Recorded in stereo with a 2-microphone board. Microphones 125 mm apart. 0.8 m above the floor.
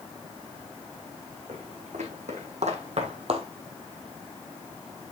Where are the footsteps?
80° right, 4 m; by 3.5 s 55° right (ahead or behind), 1.4 m.